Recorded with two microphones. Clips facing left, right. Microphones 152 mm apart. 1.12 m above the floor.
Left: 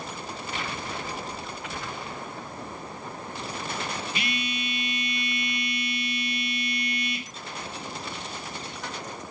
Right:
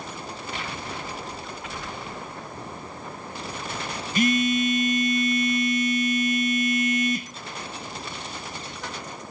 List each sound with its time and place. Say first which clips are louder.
4.2 s a phone buzzing: right 11 dB; 45° right (ahead or behind), 0.8 m